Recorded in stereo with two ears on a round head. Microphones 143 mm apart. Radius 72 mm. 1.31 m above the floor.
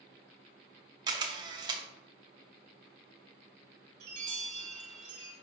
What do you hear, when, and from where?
1.1 s a camera shutter: 25° right (ahead or behind), 0.9 m
4.0 s a chime: 50° right (ahead or behind), 1.7 m